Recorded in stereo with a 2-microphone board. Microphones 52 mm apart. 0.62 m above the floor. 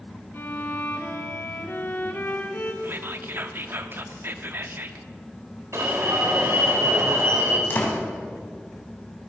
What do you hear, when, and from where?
0.3 s a violin: 45° left (ahead or behind), 1.7 m
2.8 s whispering: 45° right (ahead or behind), 1.1 m
5.7 s an alarm: 55° right (ahead or behind), 2.5 m
7.7 s a door slam: 40° left (ahead or behind), 3 m